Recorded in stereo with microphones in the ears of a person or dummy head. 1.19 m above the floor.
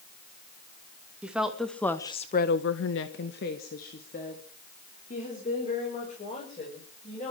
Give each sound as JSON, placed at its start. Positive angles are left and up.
{"t": 1.2, "sound": "a woman speaking", "side_deg": 0, "distance_m": 2.0}